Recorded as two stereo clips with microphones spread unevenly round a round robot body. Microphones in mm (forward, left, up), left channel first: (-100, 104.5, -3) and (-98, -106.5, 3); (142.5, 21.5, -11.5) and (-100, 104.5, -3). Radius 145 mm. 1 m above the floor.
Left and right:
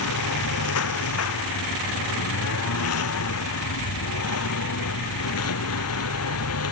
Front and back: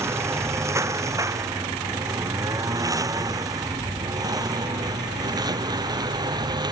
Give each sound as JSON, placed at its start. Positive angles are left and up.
{"t": 0.0, "sound": "a lawn mower", "azimuth_deg": 80}